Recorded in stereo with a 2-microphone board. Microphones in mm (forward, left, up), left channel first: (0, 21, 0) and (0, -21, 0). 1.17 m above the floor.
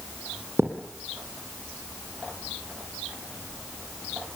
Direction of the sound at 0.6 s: 65° right (ahead or behind).